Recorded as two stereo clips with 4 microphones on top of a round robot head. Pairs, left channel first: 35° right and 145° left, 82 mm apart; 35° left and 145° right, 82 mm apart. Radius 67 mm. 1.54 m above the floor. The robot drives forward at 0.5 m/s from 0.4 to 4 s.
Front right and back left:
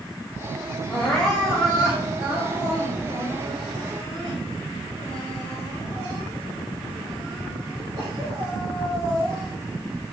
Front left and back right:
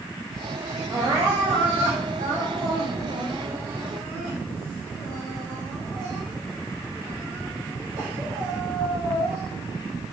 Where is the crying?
105° right, 1.0 m; by 9.5 s 160° right, 2.0 m.